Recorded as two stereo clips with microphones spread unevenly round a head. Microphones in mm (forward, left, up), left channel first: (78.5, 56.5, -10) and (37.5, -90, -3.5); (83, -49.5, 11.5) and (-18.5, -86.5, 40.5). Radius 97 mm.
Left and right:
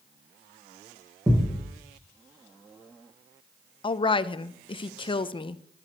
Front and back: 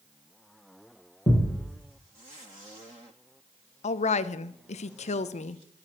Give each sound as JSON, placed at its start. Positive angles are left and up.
{"t": 1.3, "sound": "a thud", "azimuth_deg": -30, "distance_m": 5.5}
{"t": 3.8, "sound": "a woman speaking", "azimuth_deg": 15, "distance_m": 0.6}